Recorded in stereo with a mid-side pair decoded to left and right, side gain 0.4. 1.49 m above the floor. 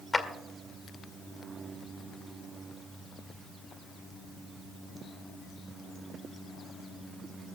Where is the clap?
25° left, 2 m.